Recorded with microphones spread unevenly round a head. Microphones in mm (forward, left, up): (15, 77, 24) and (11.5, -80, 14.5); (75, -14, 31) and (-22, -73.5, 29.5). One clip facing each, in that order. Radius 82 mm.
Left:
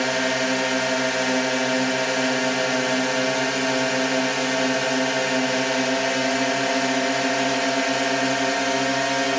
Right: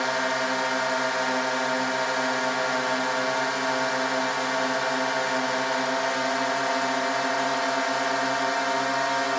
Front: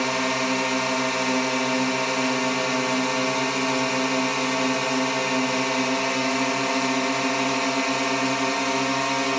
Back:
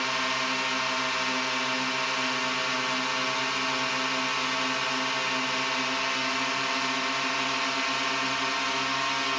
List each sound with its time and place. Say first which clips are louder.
0.0 s a drone: left 4 dB, front 6 dB; 40° left